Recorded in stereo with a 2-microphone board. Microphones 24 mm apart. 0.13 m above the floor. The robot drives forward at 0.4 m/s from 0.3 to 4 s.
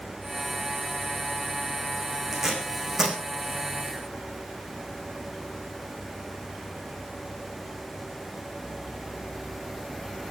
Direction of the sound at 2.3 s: 20° right (ahead or behind).